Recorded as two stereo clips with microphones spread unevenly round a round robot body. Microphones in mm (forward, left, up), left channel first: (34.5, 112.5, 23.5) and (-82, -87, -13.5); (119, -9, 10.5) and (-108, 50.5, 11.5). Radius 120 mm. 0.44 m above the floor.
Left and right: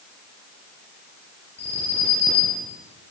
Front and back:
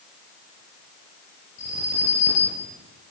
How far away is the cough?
No cough in this recording.